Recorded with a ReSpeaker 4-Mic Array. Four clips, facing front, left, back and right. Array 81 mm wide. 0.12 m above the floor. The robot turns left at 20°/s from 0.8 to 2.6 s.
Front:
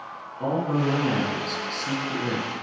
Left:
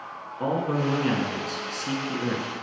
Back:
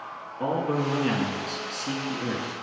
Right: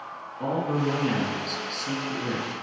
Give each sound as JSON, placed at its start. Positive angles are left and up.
{"t": 0.4, "sound": "a man speaking", "azimuth_deg": 135, "distance_m": 1.6}